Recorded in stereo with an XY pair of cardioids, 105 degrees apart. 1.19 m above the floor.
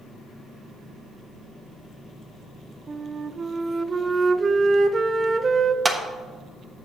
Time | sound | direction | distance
2.9 | a flute | 35° right | 0.5 m
5.8 | a clap | 15° right | 1.1 m